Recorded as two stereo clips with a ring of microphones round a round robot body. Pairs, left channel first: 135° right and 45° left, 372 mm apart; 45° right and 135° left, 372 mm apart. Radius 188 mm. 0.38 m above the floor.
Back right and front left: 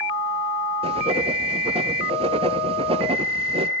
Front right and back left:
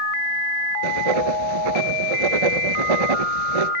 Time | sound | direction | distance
0.8 | writing | 120° left | 1.3 m